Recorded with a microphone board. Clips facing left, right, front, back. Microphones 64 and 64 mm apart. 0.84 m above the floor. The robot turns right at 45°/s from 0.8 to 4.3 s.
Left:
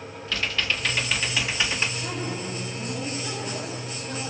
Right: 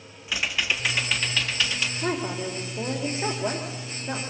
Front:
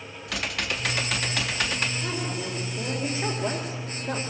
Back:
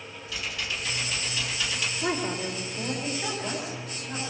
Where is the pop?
No pop in this recording.